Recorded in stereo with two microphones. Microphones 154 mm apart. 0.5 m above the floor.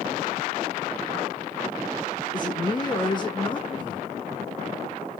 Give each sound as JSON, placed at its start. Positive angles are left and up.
{"t": 2.3, "sound": "a man speaking", "side_deg": 30, "distance_m": 0.8}